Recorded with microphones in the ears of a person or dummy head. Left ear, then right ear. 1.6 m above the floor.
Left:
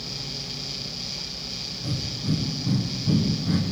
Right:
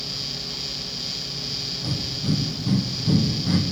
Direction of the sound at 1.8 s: 15° right (ahead or behind).